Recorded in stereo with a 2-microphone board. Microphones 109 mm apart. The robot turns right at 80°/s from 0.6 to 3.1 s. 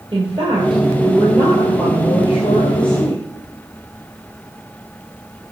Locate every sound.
0.1 s a woman speaking: 60° right, 2.0 m; by 3.3 s 140° left, 2.0 m